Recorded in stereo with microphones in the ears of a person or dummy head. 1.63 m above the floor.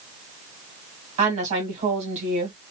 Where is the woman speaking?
40° right (ahead or behind), 2 m.